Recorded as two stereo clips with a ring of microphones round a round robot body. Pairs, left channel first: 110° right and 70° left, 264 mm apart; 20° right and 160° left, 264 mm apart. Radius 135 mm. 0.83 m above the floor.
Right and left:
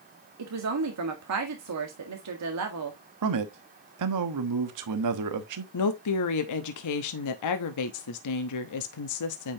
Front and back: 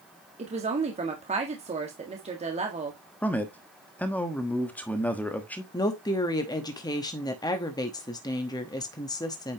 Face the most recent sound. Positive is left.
turn(degrees=-100)